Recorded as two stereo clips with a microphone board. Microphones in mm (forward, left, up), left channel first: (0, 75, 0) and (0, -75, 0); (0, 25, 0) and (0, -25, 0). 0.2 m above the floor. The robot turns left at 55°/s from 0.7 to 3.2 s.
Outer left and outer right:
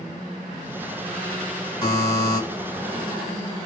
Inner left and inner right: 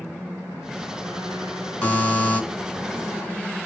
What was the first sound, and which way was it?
A buzzer, 25° left (ahead or behind).